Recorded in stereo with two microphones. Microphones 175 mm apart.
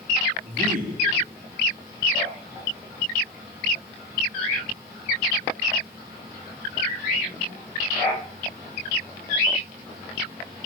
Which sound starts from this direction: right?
A man speaking, at 0.4 s.